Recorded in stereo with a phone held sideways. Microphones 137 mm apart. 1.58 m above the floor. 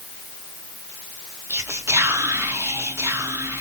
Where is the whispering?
20° right (ahead or behind), 1.2 m.